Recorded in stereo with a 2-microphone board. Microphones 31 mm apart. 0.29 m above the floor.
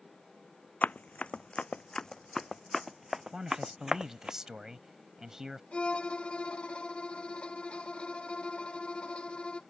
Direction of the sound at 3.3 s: 15° right (ahead or behind).